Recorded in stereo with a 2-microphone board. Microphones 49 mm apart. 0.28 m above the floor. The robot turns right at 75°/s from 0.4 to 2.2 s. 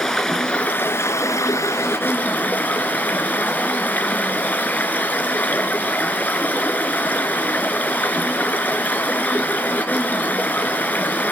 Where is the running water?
10° left, 2 m; by 11.3 s 145° left, 2 m.